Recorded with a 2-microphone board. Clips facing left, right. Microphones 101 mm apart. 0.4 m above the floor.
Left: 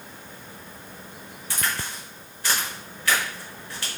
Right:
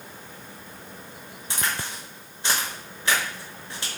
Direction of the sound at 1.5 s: 25° right (ahead or behind).